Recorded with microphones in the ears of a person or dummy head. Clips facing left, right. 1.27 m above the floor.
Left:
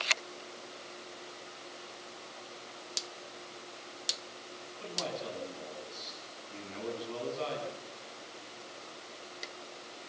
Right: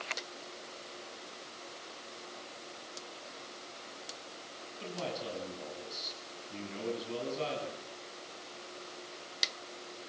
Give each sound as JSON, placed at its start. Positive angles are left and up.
{"t": 4.8, "sound": "a man speaking", "side_deg": -25, "distance_m": 10.0}